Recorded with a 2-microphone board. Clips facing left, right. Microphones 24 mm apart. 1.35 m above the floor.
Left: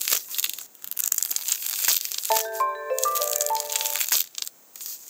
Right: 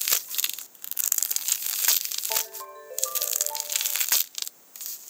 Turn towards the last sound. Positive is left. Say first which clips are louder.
# left 9 dB
turn(degrees=70)  # may be behind; listen again after turning